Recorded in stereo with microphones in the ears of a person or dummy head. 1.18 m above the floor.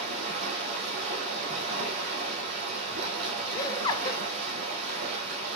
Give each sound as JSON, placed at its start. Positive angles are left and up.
{"t": 0.0, "sound": "running water", "side_deg": -55, "distance_m": 4.5}
{"t": 3.5, "sound": "laughter", "side_deg": 25, "distance_m": 1.0}